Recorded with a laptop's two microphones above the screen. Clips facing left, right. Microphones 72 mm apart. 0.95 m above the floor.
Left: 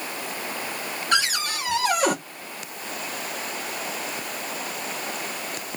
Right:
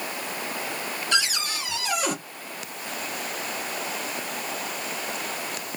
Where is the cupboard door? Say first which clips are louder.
Left 4 dB; 45° left (ahead or behind), 1.3 m.